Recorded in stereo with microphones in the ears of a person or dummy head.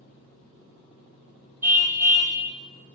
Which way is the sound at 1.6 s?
10° right (ahead or behind).